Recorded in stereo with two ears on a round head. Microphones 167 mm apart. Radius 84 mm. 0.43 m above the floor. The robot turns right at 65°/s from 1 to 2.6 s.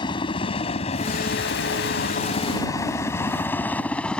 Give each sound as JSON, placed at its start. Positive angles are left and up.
{"t": 0.0, "sound": "a helicopter", "side_deg": 25}